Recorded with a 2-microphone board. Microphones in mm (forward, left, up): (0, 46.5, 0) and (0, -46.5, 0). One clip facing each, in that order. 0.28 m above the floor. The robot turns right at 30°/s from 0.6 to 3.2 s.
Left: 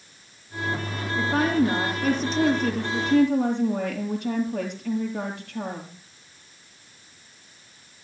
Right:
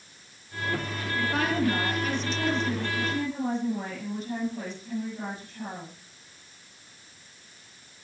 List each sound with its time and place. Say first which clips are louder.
1.1 s a woman speaking: left 5 dB; 30° left, 6 m; by 6.0 s 90° left, 6 m